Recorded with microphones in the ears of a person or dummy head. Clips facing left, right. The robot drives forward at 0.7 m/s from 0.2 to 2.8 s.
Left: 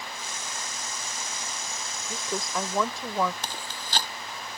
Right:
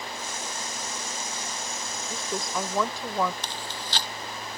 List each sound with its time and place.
2.1 s a woman speaking: centre (ahead or behind)
3.4 s chewing: 40° left (ahead or behind)